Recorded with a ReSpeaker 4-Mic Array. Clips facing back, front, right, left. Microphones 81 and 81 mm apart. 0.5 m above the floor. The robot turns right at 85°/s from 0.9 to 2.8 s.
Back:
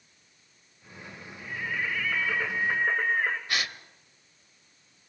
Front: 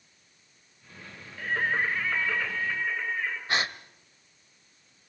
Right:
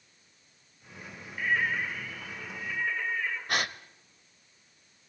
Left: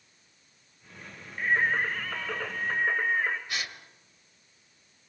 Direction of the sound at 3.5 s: 60° right.